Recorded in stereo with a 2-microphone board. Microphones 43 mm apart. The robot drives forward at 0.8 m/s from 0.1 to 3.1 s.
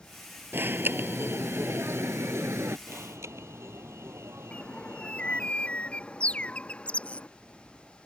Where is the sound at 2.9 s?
80° right.